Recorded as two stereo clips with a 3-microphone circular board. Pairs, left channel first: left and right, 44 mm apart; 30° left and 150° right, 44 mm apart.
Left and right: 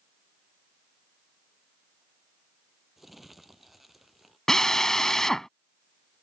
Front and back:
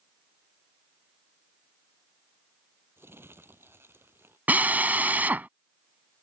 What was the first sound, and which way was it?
Crumpling, 175° right.